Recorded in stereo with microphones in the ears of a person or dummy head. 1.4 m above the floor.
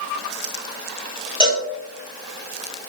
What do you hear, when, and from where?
1.4 s a cowbell: 30° left (ahead or behind), 0.7 m